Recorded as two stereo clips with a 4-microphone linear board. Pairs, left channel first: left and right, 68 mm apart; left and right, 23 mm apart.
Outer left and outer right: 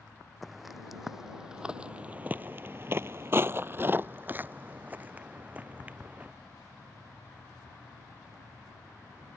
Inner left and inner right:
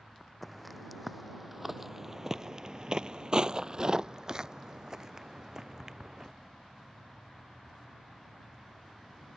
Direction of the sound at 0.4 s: Centre (ahead or behind).